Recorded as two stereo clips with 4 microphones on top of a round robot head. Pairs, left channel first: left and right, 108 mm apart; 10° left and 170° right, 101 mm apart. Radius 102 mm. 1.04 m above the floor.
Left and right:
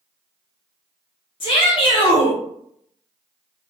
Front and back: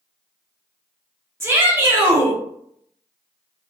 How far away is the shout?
About 0.8 m.